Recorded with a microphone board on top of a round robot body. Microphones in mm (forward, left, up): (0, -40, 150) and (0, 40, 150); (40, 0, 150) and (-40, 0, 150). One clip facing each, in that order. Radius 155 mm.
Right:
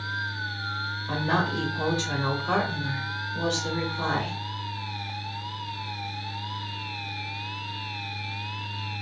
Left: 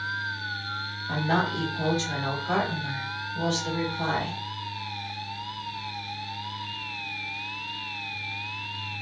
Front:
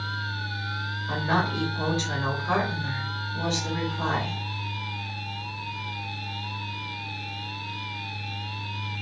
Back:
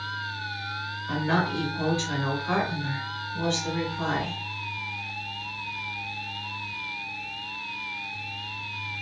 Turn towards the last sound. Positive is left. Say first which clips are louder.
# left 1 dB, even
turn(degrees=-75)